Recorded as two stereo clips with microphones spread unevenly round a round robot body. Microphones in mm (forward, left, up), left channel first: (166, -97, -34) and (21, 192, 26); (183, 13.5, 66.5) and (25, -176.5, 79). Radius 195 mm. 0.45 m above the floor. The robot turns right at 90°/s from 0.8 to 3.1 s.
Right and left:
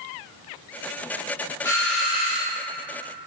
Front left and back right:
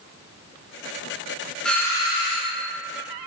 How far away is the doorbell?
About 1.2 m.